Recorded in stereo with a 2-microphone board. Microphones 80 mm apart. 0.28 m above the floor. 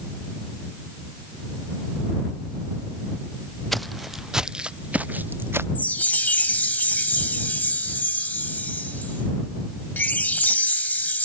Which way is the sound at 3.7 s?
Centre (ahead or behind).